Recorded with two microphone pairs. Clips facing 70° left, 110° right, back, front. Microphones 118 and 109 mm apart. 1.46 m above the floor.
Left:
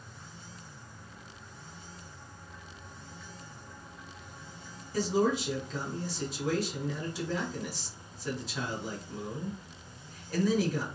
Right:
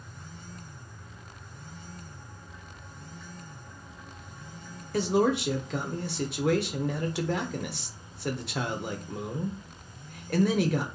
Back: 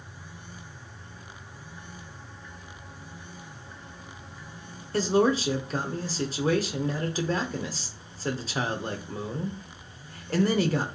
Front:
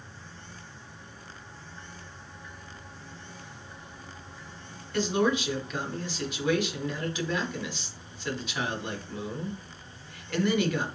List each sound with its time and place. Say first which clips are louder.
4.9 s a man speaking: right 3 dB, back 3 dB; 130° right, 0.7 m